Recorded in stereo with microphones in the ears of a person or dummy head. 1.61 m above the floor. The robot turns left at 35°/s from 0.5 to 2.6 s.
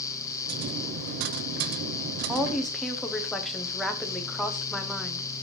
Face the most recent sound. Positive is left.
turn(degrees=0)  # may be behind; listen again after turning